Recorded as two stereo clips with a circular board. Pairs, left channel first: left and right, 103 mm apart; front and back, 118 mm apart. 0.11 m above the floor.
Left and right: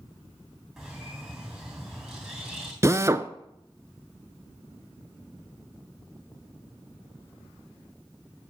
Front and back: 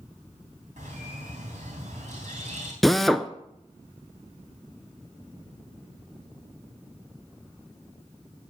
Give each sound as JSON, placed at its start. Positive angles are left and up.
{"t": 0.8, "sound": "a bird", "azimuth_deg": -175, "distance_m": 3.0}
{"t": 2.8, "sound": "a drill", "azimuth_deg": -85, "distance_m": 0.5}